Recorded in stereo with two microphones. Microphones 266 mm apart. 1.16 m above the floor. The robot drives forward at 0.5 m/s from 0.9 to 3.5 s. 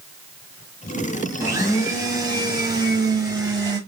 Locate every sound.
1.4 s a blender: 10° right (ahead or behind), 1.2 m; by 3.8 s 15° right (ahead or behind), 1.0 m